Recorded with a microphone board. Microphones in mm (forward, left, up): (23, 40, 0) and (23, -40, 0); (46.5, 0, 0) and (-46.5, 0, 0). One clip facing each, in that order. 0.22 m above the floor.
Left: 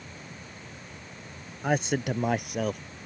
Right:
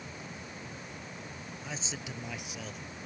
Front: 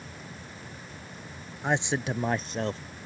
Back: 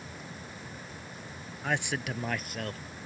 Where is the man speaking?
65° left; by 2.8 s 60° left.